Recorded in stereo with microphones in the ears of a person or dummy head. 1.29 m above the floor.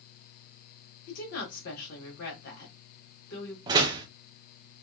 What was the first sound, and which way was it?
A woman speaking, 55° left (ahead or behind).